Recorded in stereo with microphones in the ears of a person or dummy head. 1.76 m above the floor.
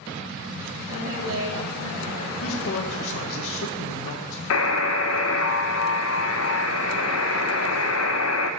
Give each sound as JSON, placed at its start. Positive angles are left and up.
{"t": 0.9, "sound": "a woman speaking", "side_deg": -65, "distance_m": 2.0}
{"t": 2.4, "sound": "a man speaking", "side_deg": 65, "distance_m": 1.0}
{"t": 4.5, "sound": "a buzzer", "side_deg": 80, "distance_m": 0.6}